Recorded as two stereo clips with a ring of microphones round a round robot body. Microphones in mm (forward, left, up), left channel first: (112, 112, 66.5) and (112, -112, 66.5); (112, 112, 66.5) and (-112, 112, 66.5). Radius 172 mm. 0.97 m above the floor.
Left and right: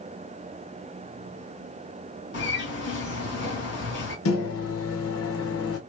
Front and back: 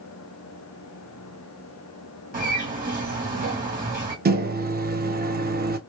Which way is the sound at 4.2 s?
125° left.